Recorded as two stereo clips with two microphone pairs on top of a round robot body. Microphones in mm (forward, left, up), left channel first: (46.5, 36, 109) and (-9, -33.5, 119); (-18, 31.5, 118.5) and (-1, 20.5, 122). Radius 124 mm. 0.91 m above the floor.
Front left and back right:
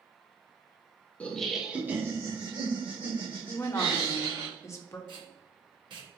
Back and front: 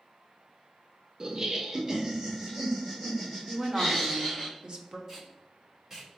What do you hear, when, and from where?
1.2 s laughter: 10° left, 0.8 m; by 4.5 s 120° right, 2.0 m
3.5 s a woman speaking: 10° left, 0.9 m
5.1 s tape being pulled: 100° right, 1.2 m